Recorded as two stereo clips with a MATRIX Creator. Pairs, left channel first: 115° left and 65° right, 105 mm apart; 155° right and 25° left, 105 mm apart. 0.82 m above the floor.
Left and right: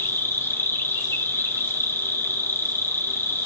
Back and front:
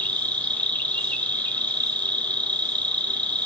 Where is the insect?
145° left, 1.4 m.